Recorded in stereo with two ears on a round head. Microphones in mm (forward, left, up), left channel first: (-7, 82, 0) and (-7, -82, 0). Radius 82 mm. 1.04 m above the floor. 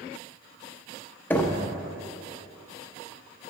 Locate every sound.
1.3 s knocking: 10° left (ahead or behind), 0.8 m